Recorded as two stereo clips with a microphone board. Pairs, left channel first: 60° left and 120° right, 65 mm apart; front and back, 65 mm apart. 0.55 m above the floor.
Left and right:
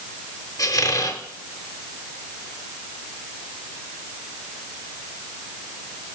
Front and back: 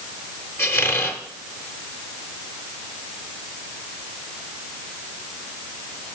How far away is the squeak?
About 0.8 m.